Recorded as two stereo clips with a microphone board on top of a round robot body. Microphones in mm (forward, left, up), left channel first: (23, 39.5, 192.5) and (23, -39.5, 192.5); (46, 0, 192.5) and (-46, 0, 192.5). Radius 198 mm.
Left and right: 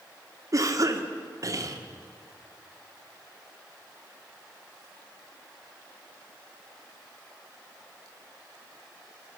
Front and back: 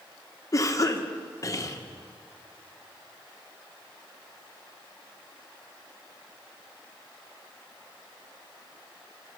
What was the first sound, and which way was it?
A cough, 50° right.